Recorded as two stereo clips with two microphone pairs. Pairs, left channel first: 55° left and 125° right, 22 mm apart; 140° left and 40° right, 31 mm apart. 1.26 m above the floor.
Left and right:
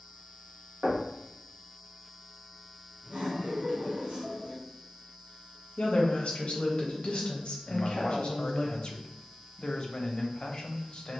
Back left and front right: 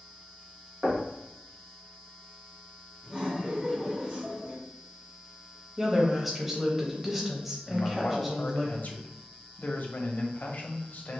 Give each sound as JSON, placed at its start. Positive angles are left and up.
{"t": 0.8, "sound": "knocking", "azimuth_deg": -80, "distance_m": 1.2}
{"t": 3.0, "sound": "laughter", "azimuth_deg": -90, "distance_m": 1.8}
{"t": 5.8, "sound": "a woman speaking", "azimuth_deg": 45, "distance_m": 0.7}
{"t": 7.7, "sound": "a man speaking", "azimuth_deg": 110, "distance_m": 0.6}